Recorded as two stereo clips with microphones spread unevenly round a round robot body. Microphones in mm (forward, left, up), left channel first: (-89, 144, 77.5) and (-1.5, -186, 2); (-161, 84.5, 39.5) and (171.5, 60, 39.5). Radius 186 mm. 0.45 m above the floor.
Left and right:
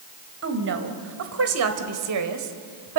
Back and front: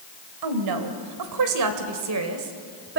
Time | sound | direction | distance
0.4 | a woman speaking | 25° right | 2.5 m